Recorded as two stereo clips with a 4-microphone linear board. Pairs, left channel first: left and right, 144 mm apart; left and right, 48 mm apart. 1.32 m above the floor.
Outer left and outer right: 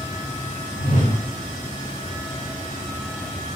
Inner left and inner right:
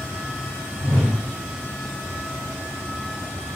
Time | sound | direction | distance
0.8 | a whoosh | 65° left (ahead or behind) | 1.3 m